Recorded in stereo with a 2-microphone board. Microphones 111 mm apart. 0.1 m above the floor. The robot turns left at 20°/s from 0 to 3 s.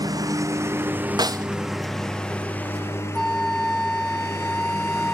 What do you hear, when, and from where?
0.0 s a lawn mower: 145° right; by 5.2 s 155° left
1.2 s a snare drum: 35° right (ahead or behind); by 1.5 s 30° right (ahead or behind)
3.1 s a flute: 5° left (ahead or behind)